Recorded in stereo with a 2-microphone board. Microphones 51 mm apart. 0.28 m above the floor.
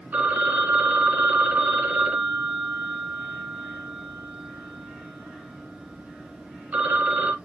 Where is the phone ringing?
40° right (ahead or behind), 0.8 m.